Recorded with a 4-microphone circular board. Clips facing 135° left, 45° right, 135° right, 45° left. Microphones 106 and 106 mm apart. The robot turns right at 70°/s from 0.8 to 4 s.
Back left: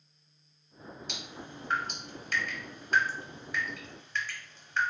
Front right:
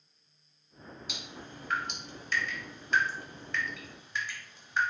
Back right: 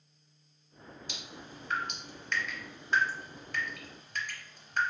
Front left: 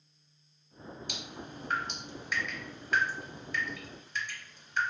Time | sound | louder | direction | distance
1.1 | dripping | back left 1 dB, front left 2 dB | 35° left | 0.7 m